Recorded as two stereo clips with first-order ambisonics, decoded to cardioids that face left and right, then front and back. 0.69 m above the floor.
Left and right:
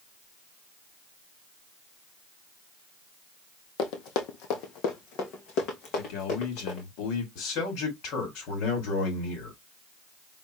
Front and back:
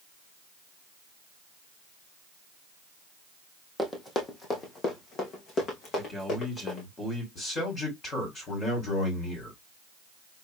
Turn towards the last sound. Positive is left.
turn(degrees=65)